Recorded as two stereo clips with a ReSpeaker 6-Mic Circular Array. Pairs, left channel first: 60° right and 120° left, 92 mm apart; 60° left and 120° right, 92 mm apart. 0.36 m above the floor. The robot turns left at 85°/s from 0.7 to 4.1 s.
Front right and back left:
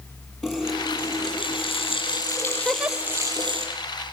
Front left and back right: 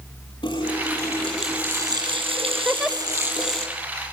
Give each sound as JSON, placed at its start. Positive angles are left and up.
{"t": 0.4, "sound": "a running tap", "azimuth_deg": 35, "distance_m": 7.0}
{"t": 2.6, "sound": "a giggle", "azimuth_deg": -175, "distance_m": 0.8}